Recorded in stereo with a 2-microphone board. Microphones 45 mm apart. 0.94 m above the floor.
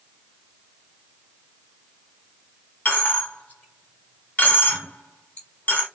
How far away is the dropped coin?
About 1.5 m.